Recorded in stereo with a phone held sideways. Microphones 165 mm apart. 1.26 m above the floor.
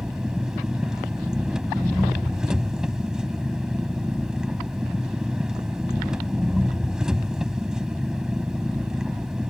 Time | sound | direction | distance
0.0 | an engine running | 5° right (ahead or behind) | ?